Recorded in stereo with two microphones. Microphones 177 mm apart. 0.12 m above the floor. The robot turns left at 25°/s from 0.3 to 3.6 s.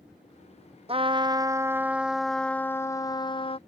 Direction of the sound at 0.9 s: 145° right.